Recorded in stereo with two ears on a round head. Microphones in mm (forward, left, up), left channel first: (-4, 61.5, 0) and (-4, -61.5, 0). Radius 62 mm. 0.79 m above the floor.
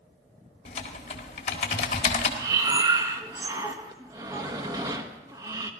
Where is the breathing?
25° right (ahead or behind), 1.0 m.